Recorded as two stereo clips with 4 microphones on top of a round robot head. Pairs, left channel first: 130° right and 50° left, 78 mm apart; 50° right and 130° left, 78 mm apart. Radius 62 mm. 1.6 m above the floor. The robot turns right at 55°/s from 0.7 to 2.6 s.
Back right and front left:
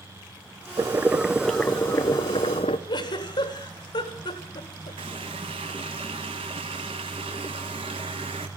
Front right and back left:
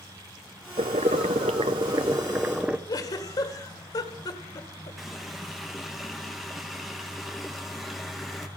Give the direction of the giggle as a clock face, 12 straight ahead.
3 o'clock.